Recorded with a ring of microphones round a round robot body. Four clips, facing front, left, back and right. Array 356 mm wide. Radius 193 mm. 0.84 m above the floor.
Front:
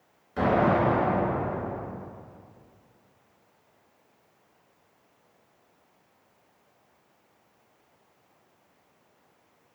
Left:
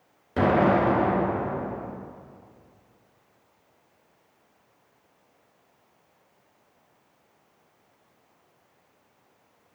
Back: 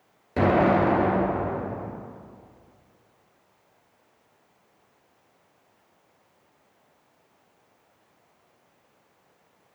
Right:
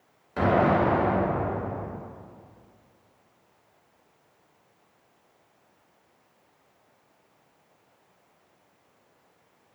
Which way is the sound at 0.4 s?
145° left.